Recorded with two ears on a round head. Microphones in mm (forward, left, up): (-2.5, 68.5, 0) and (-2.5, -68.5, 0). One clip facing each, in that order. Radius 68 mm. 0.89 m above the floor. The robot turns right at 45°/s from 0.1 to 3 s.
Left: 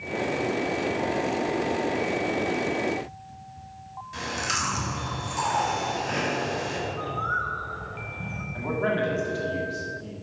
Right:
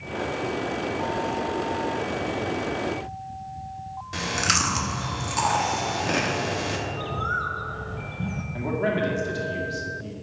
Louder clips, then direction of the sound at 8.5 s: Right 1 dB; 20° right (ahead or behind).